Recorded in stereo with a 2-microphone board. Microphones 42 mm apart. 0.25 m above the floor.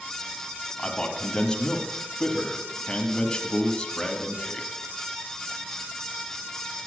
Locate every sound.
0.8 s a man speaking: 15° left (ahead or behind), 1.8 m